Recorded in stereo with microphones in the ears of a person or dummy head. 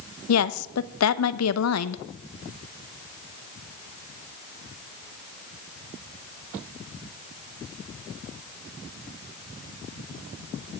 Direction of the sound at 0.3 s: 85° left.